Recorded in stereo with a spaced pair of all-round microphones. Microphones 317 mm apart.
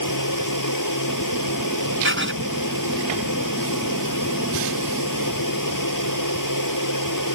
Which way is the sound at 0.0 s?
80° left.